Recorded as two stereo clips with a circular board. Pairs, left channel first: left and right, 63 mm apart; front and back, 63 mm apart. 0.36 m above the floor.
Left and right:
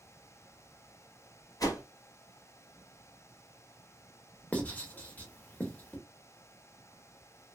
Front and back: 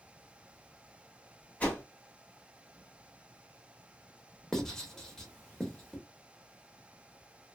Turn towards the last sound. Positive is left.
turn(degrees=70)